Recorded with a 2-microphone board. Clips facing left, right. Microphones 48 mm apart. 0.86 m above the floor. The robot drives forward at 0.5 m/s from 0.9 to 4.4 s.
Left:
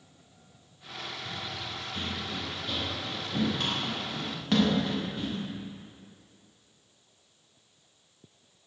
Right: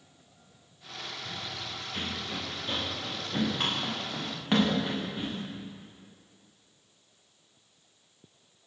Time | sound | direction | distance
1.2 | running footsteps | 35° right (ahead or behind) | 9.5 m